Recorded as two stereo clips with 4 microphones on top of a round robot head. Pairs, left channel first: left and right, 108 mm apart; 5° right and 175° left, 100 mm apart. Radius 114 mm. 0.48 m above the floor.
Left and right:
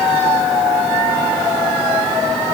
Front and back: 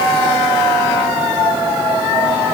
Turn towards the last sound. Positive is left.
No sound to turn to.